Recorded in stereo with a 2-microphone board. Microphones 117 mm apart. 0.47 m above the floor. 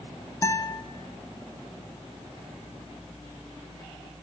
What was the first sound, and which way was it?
A guitar, 25° left (ahead or behind).